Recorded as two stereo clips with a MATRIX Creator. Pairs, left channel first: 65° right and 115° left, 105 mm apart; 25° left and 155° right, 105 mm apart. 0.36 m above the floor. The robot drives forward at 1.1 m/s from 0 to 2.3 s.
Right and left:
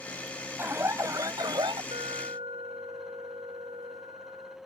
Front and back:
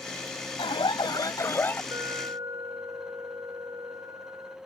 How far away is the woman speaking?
I don't hear a woman speaking.